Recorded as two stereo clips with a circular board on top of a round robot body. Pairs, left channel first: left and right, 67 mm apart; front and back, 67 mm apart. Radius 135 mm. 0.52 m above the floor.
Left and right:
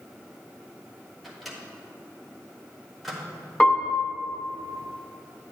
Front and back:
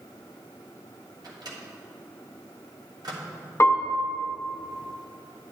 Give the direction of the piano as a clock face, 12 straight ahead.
11 o'clock.